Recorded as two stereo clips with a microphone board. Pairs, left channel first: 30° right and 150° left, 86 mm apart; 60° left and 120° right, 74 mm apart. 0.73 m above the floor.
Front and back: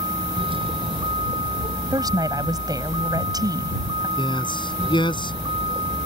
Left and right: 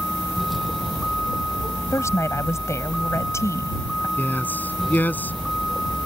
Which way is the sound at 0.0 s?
150° left.